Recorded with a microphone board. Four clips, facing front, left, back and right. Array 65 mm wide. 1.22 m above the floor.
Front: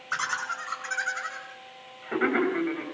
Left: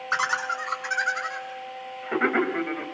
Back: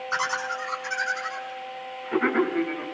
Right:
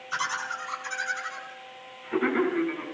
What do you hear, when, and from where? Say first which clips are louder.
0.1 s laughter: left 5 dB, back 2 dB; 80° left, 6.5 m; by 2.9 s 70° left, 7 m